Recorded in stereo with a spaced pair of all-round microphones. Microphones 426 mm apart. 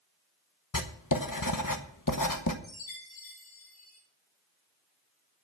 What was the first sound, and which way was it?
Writing, 50° left (ahead or behind).